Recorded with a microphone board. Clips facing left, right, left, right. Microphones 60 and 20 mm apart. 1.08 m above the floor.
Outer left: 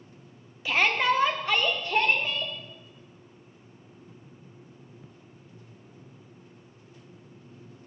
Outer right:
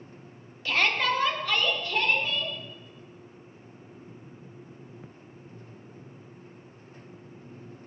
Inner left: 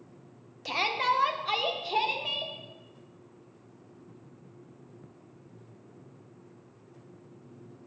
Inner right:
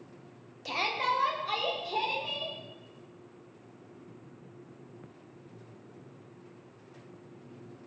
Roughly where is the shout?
Centre.